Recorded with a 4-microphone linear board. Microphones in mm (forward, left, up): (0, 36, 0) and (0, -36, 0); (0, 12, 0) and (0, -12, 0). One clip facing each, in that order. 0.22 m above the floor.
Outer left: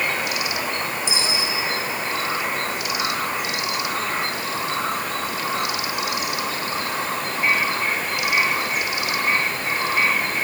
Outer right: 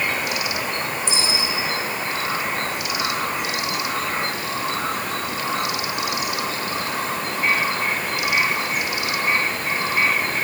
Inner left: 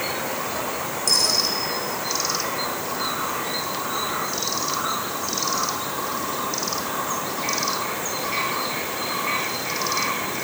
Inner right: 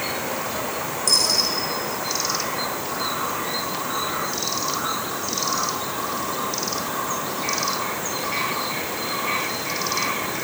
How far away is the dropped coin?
About 9 m.